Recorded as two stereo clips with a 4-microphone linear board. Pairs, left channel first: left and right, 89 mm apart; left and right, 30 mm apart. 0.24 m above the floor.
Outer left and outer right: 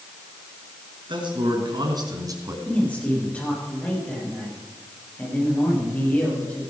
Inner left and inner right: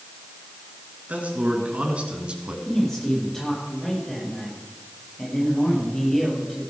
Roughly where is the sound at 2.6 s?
Centre.